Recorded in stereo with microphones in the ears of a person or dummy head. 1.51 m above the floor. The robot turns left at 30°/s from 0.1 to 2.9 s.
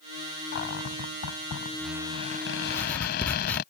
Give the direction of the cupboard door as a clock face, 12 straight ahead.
8 o'clock.